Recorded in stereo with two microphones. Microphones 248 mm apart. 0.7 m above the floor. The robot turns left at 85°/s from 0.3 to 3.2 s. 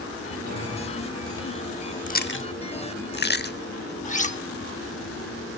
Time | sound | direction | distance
0.5 | a thud | 80° right | 7.5 m
2.1 | chewing | 30° left (ahead or behind) | 0.7 m
4.0 | cutlery clinking | 30° left (ahead or behind) | 0.9 m